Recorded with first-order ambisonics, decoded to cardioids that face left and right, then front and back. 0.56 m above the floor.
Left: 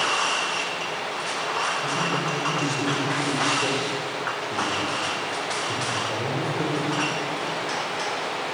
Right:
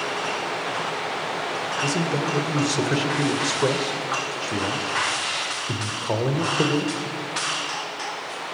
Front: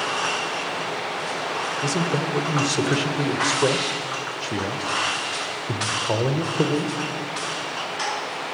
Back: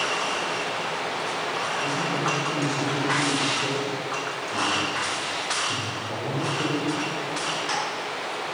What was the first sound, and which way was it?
A man speaking, 35° right.